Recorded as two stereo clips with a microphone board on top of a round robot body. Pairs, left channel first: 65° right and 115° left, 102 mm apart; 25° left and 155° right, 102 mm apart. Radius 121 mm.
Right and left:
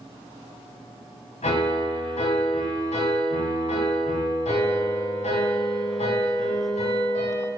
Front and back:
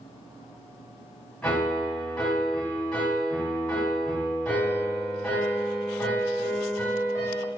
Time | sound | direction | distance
1.4 | a piano | 60° right | 2 m